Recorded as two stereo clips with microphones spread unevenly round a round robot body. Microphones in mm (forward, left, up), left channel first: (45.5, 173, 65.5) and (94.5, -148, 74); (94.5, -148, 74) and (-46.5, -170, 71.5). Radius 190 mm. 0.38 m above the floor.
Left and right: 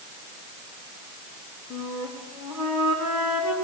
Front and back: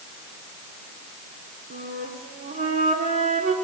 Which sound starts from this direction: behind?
A flute, at 1.7 s.